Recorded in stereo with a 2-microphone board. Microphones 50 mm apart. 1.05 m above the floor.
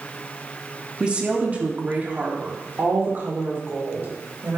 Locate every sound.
1.0 s a woman speaking: 20° right (ahead or behind), 2 m; by 4.6 s 55° right (ahead or behind), 5 m